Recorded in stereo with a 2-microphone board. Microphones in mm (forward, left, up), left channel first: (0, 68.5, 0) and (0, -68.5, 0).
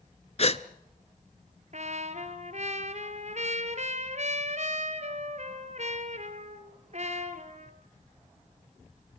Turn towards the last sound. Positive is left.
turn(degrees=-55)  # may be behind; listen again after turning